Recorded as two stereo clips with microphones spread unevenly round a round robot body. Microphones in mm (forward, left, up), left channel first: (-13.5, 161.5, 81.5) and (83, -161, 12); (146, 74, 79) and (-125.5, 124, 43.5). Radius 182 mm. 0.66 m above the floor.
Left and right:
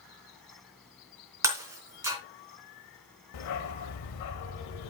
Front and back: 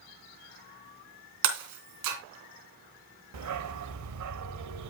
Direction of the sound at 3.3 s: 145° left.